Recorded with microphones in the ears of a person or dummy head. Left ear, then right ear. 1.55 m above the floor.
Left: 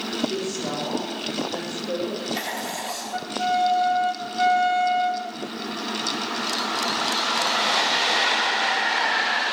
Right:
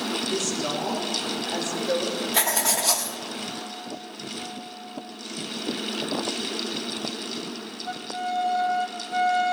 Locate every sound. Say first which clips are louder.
0.3 s a woman speaking: right 1 dB; 70° right (ahead or behind), 5 m; by 2.2 s 90° right, 4.5 m
2.3 s writing: right 5 dB; 75° right (ahead or behind), 1.5 m